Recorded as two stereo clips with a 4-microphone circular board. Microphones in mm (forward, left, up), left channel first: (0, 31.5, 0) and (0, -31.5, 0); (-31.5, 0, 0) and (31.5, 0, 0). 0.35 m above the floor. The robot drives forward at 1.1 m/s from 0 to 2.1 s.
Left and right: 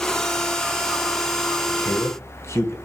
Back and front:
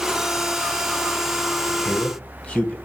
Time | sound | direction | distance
1.7 | a man speaking | 105° left | 2.5 m